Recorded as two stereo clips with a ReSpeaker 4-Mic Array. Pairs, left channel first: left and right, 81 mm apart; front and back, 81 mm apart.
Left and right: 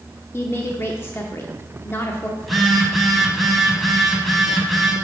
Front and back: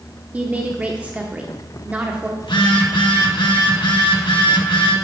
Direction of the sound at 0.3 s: 120° left.